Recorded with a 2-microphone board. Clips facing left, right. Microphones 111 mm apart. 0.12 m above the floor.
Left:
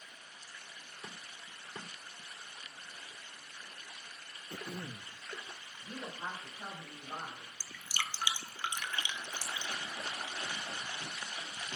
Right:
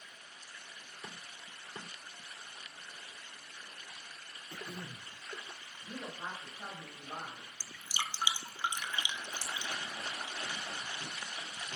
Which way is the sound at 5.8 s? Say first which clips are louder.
Even; 10° left (ahead or behind).